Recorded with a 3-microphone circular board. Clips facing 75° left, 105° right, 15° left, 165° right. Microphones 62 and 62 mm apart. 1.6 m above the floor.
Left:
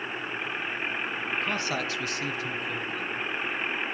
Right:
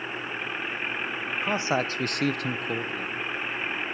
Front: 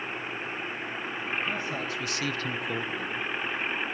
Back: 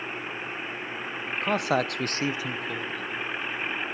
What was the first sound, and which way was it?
A man speaking, straight behind.